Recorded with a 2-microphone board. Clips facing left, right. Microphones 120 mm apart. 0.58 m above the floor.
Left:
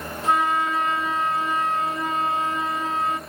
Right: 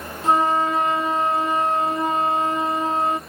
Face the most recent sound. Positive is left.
turn(degrees=-30)  # may be behind; listen again after turning